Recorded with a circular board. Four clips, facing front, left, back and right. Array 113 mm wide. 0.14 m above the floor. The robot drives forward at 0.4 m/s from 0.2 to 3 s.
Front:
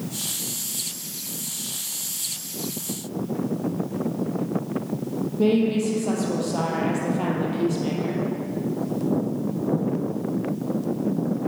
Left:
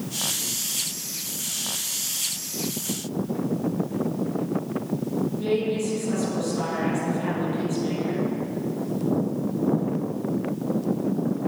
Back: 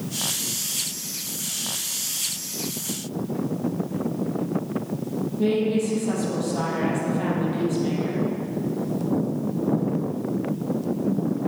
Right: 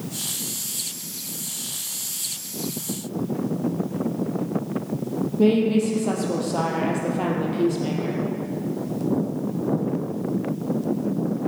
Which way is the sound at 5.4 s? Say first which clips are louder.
Right 9 dB, front 2 dB; 65° right.